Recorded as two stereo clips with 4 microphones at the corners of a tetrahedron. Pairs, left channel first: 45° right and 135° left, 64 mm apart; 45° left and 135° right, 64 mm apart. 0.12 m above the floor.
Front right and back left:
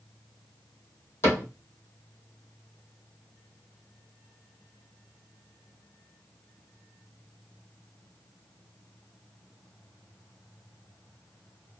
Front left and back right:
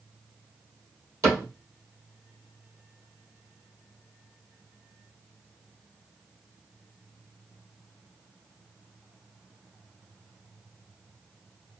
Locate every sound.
1.2 s a cupboard door: 100° right, 2 m